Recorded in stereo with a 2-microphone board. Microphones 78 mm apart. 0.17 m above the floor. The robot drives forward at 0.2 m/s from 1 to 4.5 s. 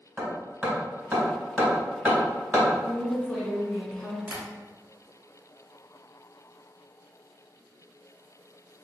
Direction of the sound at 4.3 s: 15° right (ahead or behind).